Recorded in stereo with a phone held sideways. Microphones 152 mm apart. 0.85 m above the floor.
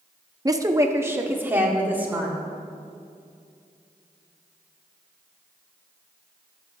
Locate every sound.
0.5 s a woman speaking: 25° right (ahead or behind), 0.7 m; by 2.4 s 10° right (ahead or behind), 2.5 m